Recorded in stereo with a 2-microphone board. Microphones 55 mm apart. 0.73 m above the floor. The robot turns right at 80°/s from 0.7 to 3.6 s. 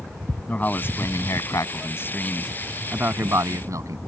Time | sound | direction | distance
0.5 | a man speaking | 30° left | ?